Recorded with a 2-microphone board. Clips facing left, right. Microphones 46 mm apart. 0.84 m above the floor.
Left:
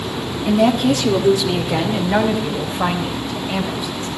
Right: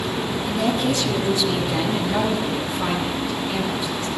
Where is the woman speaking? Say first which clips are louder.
Left 8 dB; 60° left (ahead or behind), 1.4 m; by 4.1 s 35° left (ahead or behind), 4.5 m.